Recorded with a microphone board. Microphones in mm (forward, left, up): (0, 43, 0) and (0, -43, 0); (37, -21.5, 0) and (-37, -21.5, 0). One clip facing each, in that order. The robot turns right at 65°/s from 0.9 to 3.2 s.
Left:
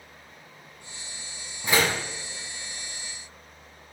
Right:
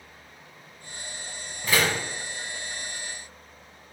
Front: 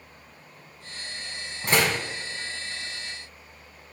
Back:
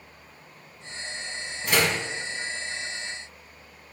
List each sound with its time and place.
1.6 s a door slam: 25° left, 0.9 m; by 2.0 s 50° left, 0.9 m